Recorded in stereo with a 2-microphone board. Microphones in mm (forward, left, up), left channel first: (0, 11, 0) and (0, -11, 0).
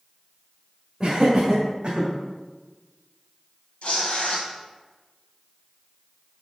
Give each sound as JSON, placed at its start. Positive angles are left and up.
{"t": 1.0, "sound": "laughter", "side_deg": -20, "distance_m": 1.6}
{"t": 3.8, "sound": "tearing paper", "side_deg": 60, "distance_m": 1.8}